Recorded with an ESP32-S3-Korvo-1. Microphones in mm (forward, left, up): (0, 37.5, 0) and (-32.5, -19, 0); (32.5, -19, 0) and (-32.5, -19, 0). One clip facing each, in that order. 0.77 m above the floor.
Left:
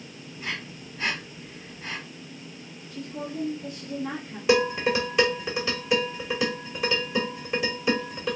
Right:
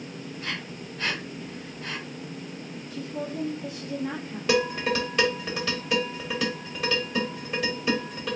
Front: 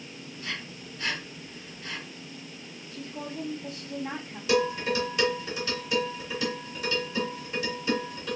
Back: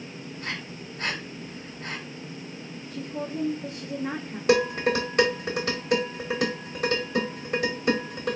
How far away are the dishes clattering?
About 2.0 m.